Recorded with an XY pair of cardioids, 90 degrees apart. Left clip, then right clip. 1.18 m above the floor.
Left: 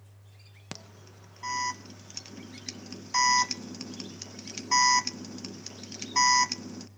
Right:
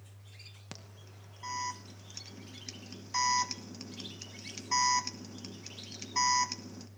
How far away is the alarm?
About 1.0 m.